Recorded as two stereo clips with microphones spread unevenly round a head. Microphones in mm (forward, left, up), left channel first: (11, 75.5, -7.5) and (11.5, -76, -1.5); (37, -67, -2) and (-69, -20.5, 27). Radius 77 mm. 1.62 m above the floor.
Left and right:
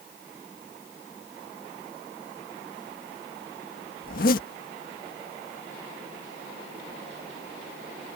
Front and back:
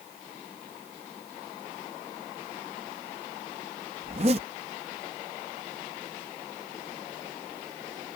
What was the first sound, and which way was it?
A zipper, 120° left.